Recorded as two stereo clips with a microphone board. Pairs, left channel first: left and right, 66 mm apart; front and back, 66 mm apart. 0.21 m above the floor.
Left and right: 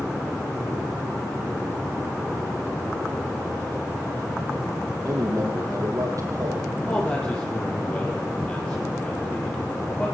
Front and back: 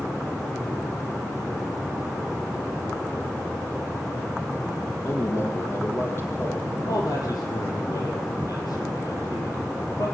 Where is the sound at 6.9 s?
20° left, 7.5 m.